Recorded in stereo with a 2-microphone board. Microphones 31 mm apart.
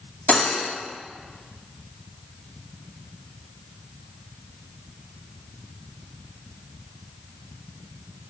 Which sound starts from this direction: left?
Cutlery clinking, at 0.3 s.